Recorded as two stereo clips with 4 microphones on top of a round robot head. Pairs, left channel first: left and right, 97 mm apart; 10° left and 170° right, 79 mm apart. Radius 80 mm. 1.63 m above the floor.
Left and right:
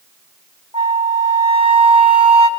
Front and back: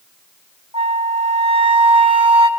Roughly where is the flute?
Behind right.